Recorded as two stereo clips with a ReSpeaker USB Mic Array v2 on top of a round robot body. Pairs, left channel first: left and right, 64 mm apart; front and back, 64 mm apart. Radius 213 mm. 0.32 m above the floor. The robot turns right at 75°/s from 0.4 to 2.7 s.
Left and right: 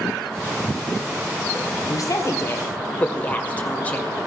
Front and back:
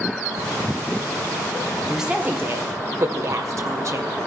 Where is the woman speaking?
90° left, 2 m; by 4.1 s 155° left, 2 m.